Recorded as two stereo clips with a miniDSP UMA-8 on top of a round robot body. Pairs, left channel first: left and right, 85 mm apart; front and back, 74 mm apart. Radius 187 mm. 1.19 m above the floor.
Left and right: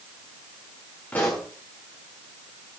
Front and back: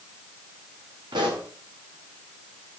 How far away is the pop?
About 1.1 m.